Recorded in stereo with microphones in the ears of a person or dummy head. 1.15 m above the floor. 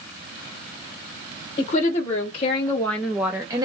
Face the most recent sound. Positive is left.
turn(degrees=-15)  # may be behind; listen again after turning